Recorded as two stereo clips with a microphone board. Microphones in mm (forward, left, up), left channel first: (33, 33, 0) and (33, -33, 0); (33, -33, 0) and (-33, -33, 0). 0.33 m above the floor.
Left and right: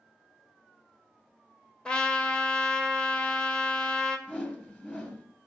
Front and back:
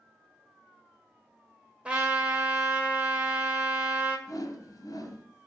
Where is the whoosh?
15° left, 1.9 m.